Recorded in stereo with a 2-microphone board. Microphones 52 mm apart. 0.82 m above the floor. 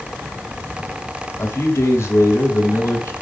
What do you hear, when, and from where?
1.4 s a man speaking: 60° left (ahead or behind), 2 m